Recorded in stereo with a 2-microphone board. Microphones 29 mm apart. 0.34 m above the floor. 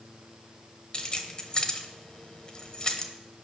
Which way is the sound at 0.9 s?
35° left (ahead or behind).